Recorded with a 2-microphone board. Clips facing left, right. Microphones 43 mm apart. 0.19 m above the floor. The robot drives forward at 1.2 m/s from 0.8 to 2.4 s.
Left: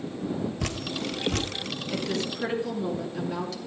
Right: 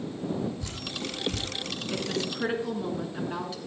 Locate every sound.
0.6 s dripping: 75° left (ahead or behind), 1.4 m; by 1.5 s 60° left (ahead or behind), 1.5 m
1.9 s a woman speaking: 35° right (ahead or behind), 2.5 m; by 3.6 s 30° right (ahead or behind), 2.5 m